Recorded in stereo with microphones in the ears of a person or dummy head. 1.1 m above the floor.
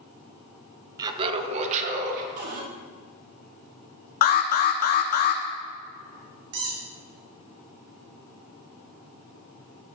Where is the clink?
I don't hear a clink.